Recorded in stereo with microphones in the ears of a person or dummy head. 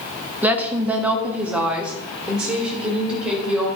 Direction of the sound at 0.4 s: 10° right (ahead or behind).